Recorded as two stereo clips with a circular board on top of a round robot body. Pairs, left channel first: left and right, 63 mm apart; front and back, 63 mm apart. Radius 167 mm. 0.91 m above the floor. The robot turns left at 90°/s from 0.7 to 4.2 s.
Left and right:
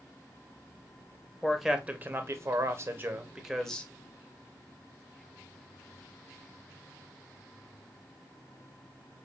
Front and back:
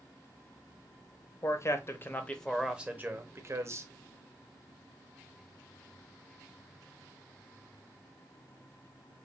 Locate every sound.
1.4 s a man speaking: 15° left, 1.1 m; by 3.9 s 150° left, 1.1 m